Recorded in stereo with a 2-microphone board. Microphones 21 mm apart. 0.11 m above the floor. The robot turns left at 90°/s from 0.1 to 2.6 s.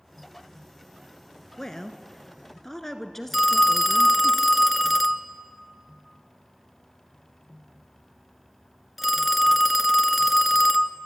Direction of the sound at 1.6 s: 20° left (ahead or behind).